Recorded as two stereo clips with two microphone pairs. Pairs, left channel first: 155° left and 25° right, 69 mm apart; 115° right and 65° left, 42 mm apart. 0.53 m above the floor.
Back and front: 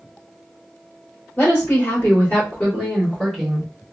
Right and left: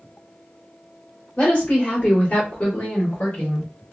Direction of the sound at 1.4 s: 175° right.